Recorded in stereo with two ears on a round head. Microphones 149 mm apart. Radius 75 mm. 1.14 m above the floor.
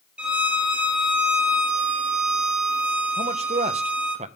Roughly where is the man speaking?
Right.